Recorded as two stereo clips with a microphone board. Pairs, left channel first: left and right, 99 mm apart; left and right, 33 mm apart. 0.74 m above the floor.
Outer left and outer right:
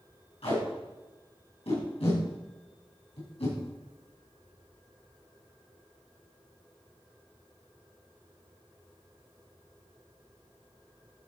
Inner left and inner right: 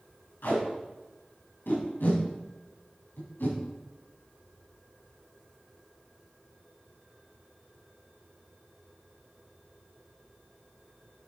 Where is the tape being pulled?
80° left, 4.5 m.